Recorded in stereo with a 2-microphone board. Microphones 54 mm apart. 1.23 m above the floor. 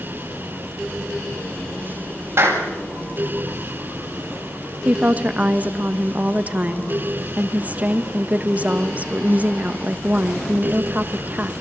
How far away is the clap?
About 7.5 m.